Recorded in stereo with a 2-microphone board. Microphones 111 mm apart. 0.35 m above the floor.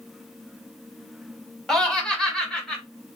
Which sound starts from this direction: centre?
Laughter, at 1.7 s.